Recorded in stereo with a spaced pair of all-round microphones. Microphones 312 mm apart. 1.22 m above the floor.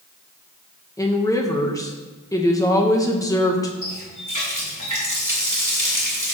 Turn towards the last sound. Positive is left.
turn(degrees=-70)  # may be behind; listen again after turning